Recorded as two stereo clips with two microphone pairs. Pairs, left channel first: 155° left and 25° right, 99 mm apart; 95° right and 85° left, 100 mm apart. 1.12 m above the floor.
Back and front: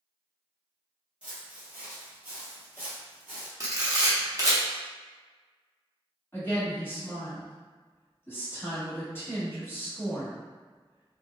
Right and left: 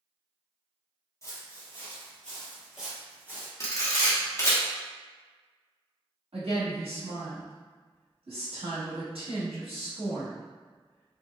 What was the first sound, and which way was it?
Footsteps, 95° right.